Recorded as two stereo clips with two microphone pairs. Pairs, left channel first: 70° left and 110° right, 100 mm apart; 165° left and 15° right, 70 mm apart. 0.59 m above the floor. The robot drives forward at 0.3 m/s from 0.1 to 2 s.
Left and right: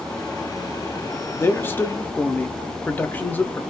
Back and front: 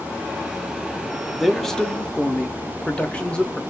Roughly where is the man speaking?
Ahead left.